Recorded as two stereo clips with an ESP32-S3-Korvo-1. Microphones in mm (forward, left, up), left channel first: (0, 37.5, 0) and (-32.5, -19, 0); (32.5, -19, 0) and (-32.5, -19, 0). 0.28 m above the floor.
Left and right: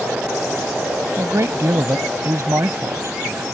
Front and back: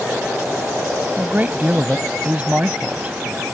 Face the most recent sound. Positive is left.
turn(degrees=-120)